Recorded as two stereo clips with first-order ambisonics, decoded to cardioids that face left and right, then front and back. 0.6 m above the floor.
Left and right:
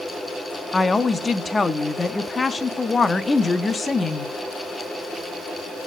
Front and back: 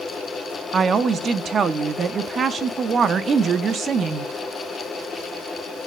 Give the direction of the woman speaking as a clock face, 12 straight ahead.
7 o'clock.